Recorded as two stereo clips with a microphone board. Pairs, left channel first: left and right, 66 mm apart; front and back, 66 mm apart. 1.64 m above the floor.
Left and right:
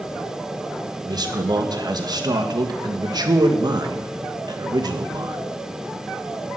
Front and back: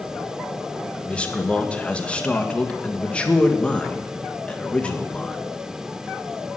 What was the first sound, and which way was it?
A man speaking, 75° right.